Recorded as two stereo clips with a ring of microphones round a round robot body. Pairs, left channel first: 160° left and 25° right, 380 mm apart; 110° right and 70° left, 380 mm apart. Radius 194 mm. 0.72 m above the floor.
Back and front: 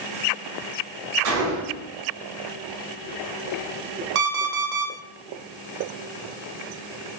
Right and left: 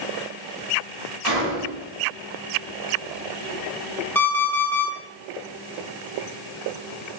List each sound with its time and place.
1.2 s a gunshot: 30° left, 1.3 m
4.2 s an alarm clock: 25° right, 1.1 m